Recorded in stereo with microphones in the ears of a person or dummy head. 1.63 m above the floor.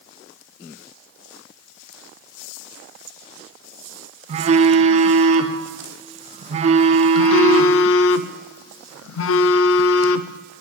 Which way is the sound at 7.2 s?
75° left (ahead or behind).